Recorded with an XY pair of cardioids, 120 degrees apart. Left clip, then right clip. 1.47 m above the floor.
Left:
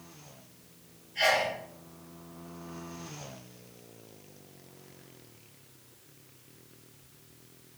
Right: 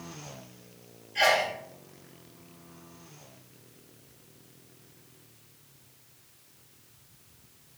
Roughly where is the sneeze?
Ahead right.